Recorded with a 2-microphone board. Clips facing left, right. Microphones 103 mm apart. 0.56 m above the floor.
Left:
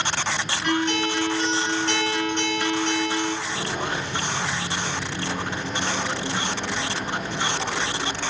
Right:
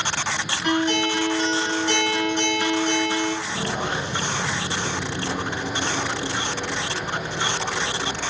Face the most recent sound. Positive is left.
turn(degrees=5)  # may be behind; listen again after turning